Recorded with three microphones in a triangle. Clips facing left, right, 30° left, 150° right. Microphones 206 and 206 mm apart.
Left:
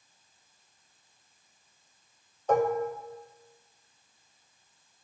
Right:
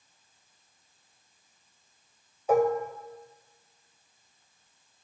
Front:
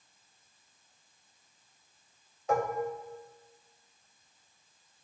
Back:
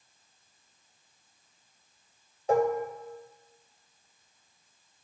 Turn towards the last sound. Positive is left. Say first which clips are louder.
# right 2 dB, back 6 dB
turn(degrees=-165)